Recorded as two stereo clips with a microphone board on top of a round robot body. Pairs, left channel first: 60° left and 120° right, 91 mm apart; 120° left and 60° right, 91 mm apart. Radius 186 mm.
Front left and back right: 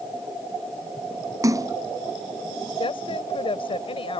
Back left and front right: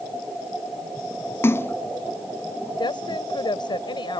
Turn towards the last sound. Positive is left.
turn(degrees=85)